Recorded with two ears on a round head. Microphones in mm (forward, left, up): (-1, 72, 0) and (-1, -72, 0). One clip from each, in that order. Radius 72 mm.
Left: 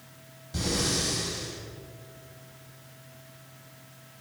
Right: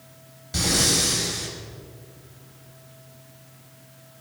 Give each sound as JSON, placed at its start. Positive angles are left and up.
{"t": 0.5, "sound": "breathing", "side_deg": -40, "distance_m": 5.0}